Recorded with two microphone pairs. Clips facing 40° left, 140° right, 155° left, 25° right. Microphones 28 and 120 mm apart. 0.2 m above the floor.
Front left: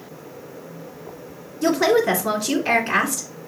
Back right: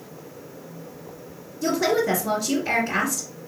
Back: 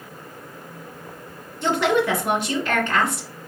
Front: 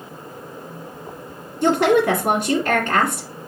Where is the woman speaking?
15° left, 2 m.